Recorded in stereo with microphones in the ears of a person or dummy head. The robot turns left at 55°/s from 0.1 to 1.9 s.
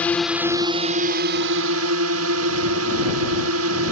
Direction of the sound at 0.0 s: 5° left.